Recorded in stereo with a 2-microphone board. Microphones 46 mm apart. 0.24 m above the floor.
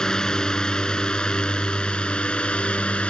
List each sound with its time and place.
0.0 s a drone: 15° left (ahead or behind); by 3.1 s 25° left (ahead or behind)